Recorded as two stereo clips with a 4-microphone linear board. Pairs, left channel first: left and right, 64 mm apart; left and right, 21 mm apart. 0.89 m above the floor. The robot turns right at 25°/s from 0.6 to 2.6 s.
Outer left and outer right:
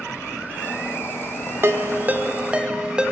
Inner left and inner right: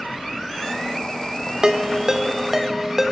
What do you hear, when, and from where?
1.6 s a ringtone: 40° right (ahead or behind), 1.4 m; by 3.1 s 15° right (ahead or behind), 1.4 m